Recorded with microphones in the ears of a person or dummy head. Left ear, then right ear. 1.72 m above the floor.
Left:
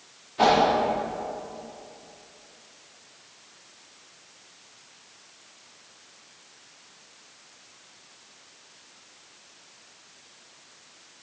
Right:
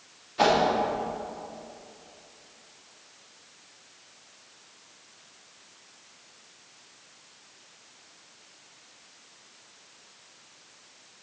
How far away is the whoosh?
About 3 m.